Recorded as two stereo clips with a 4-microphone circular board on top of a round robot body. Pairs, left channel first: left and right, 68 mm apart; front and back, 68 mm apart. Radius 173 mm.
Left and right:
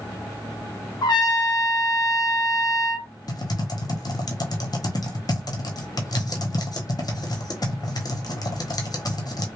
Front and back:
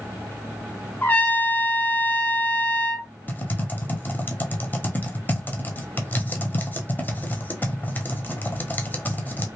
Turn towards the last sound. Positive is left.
turn(degrees=65)